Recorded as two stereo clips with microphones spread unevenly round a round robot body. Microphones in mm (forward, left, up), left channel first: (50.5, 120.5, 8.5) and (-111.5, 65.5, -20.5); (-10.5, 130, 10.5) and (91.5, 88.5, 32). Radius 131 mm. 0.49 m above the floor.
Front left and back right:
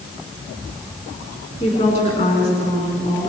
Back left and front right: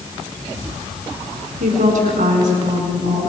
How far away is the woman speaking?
About 4.5 m.